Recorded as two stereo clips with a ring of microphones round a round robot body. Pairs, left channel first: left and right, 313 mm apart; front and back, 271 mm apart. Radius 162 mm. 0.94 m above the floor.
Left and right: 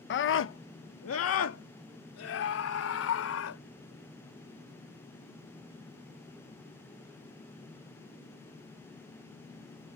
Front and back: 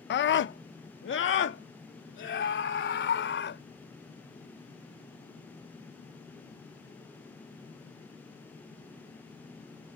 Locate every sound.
0.1 s a scream: 45° left